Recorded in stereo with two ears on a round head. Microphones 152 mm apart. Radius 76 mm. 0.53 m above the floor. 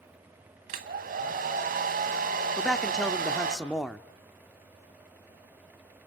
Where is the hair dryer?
55° right (ahead or behind), 2 m.